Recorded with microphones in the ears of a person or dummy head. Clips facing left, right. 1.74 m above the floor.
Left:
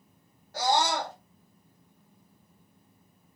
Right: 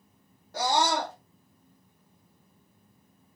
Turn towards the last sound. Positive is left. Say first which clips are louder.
# even
turn(degrees=-70)  # may be behind; listen again after turning